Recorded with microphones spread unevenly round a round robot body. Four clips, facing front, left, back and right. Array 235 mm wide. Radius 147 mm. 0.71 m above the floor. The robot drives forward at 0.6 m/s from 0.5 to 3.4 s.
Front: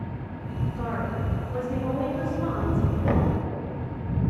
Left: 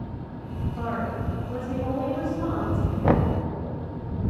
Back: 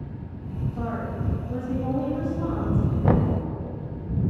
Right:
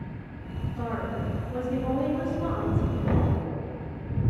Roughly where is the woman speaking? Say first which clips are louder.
Left 2 dB, even; behind.